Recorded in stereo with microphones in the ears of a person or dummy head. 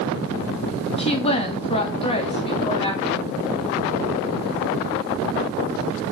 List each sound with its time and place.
1.0 s a woman speaking: 30° left (ahead or behind), 2.5 m